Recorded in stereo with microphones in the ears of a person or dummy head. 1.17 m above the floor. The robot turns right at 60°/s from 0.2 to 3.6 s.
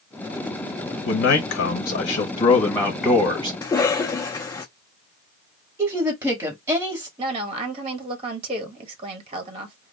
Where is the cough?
15° left (ahead or behind), 0.6 m.